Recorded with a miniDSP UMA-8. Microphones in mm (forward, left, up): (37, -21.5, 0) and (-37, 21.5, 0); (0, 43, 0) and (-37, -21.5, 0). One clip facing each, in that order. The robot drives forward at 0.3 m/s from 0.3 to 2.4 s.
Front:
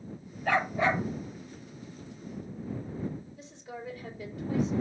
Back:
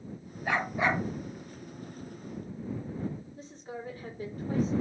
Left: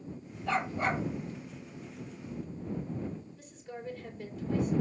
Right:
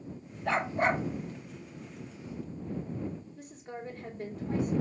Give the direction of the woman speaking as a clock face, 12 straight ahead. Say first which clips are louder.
Back 1 dB, right 2 dB; 5 o'clock.